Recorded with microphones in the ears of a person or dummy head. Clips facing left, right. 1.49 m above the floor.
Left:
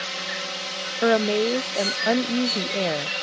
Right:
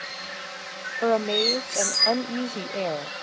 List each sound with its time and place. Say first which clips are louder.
0.0 s a drone: left 6 dB; 55° left (ahead or behind); by 3.2 s 45° left (ahead or behind)
1.0 s a woman speaking: left 3 dB; 20° left (ahead or behind)